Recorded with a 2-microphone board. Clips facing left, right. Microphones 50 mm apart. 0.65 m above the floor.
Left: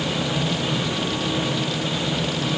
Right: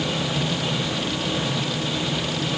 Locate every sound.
Only background noise.